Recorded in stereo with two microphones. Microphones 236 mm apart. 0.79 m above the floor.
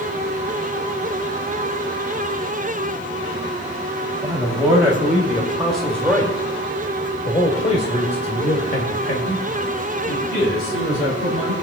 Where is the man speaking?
15° right (ahead or behind), 2.5 m; by 11.5 s 65° left (ahead or behind), 2.5 m.